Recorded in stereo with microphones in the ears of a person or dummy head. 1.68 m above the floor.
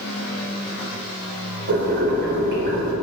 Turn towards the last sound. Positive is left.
turn(degrees=-55)  # may be behind; listen again after turning